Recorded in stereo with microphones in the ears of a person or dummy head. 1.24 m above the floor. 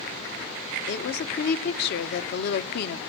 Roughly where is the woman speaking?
Left.